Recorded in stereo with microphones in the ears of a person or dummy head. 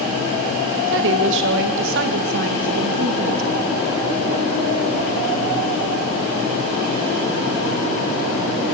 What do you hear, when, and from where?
0.9 s a woman speaking: 70° right (ahead or behind), 2 m